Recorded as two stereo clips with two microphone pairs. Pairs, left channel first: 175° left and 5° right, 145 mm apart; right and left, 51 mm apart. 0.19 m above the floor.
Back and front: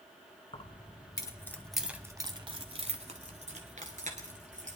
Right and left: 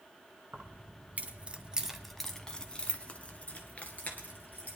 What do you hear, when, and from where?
0.5 s keys jangling: 135° left, 1.5 m; by 4.8 s 35° right, 3 m